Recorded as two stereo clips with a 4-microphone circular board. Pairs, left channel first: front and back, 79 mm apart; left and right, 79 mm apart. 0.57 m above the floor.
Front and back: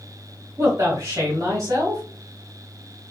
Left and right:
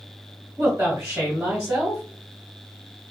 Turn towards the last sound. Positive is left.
turn(degrees=-155)